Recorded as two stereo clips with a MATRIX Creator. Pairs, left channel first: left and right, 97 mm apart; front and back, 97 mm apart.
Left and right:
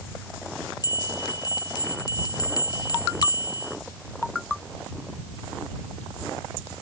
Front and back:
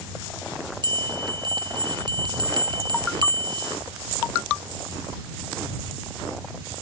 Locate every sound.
0.8 s a bell: 140° left